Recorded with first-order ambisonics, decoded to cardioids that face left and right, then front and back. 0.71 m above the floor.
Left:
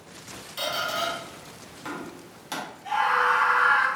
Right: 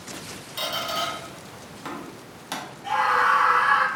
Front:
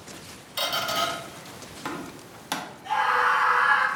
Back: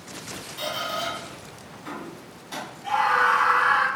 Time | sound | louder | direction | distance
0.6 | a squeak | even, front 3 dB | 15° right | 0.5 m
2.8 | a scream | right 2 dB, back 2 dB | 140° right | 0.9 m